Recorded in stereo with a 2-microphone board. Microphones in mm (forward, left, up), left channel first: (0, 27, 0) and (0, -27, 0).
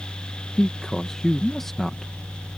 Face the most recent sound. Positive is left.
turn(degrees=5)  # may be behind; listen again after turning